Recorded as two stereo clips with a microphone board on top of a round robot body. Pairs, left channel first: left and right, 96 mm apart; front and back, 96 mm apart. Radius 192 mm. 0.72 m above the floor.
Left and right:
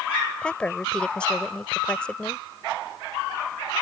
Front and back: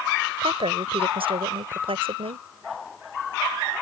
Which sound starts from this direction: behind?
A woman speaking, at 0.4 s.